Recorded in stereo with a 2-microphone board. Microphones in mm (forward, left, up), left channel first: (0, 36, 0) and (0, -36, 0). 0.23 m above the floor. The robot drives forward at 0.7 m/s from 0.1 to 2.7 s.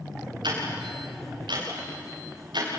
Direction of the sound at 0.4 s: 90° right.